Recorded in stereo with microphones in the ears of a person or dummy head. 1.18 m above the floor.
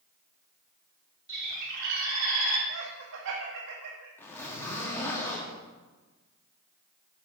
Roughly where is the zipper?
Centre.